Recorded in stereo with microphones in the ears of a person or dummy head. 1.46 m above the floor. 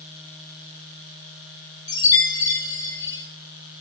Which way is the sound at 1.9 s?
15° left (ahead or behind).